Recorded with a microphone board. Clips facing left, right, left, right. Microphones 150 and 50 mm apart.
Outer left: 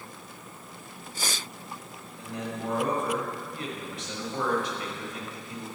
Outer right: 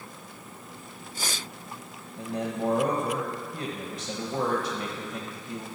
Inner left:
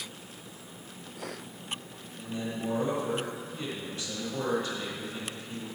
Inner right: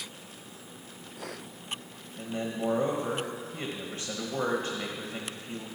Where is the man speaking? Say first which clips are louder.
Outer right 5 dB, inner right 2 dB; 40° right (ahead or behind), 1.2 m.